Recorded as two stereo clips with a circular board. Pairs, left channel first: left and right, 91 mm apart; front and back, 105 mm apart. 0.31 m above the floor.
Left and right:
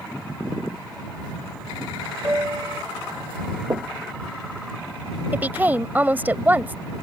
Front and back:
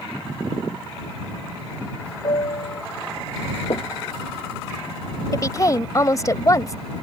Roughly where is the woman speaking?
Ahead right.